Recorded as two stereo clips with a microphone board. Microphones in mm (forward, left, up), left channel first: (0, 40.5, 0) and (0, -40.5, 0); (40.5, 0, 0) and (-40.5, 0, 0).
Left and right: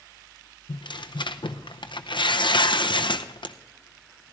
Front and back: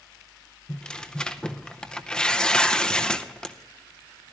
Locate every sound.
0.7 s tearing paper: 80° left, 0.6 m